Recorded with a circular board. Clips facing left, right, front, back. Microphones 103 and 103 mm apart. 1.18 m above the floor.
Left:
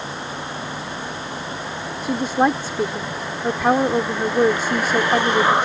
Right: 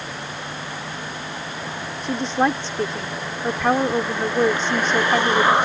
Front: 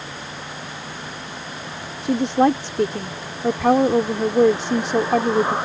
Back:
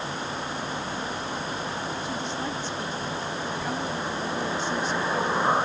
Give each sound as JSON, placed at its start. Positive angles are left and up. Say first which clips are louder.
{"t": 2.0, "sound": "a woman speaking", "louder": "left 2 dB, front 13 dB", "azimuth_deg": 10}